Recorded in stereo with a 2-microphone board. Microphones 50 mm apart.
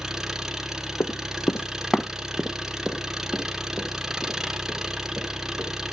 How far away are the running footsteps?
About 1.0 m.